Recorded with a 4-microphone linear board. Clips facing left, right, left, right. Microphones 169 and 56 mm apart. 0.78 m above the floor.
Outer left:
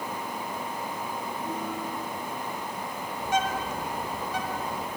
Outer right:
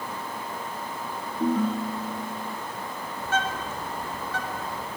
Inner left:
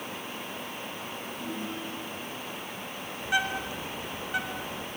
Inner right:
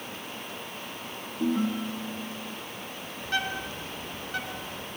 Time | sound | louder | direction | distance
1.4 | a ringtone | outer right 12 dB, inner right 11 dB | 75° right (ahead or behind) | 4 m
3.2 | a bird | outer left 1 dB, inner left 2 dB | 15° left (ahead or behind) | 3.5 m